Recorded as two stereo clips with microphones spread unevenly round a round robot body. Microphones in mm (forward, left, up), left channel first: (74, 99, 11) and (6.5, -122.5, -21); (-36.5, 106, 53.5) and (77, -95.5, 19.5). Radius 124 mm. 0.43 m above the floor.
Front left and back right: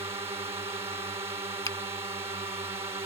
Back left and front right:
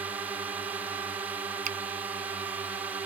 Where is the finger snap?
5° right.